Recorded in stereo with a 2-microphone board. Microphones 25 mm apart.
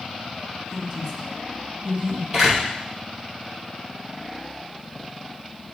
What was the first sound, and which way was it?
A woman speaking, 10° right (ahead or behind).